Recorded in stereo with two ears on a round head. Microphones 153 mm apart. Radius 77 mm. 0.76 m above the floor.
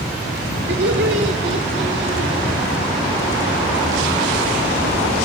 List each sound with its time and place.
0.7 s laughter: 70° right (ahead or behind), 3 m; by 2.5 s 60° right (ahead or behind), 3.5 m